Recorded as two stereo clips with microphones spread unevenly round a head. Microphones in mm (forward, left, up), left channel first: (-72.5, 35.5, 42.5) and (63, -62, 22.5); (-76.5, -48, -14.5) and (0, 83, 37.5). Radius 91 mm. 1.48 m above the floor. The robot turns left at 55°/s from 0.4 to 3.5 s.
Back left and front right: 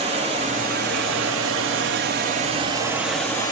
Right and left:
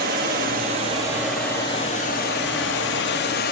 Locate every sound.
0.0 s running water: 25° left, 2.5 m; by 3.5 s 145° right, 2.5 m